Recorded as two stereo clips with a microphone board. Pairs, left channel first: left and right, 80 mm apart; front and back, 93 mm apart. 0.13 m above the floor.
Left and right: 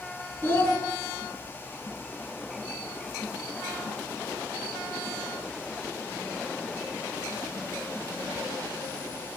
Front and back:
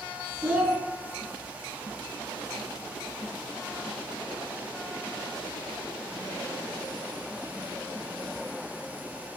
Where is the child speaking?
120° left, 0.7 m.